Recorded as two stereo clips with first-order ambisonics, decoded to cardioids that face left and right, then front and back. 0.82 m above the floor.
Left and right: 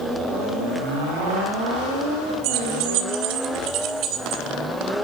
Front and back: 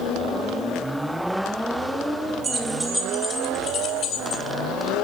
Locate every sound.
2.4 s keys jangling: 110° right, 2.5 m; by 4.4 s 40° right, 3 m